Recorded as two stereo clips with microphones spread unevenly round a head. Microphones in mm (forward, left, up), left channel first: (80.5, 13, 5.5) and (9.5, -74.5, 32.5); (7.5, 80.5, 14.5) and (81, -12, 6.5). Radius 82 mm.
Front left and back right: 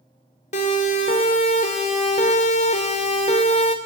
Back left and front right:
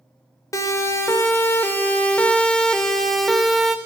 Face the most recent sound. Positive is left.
turn(degrees=35)